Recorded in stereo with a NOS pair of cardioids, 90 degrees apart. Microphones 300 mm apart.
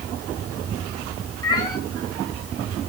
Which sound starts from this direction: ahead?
A cat meowing, at 1.4 s.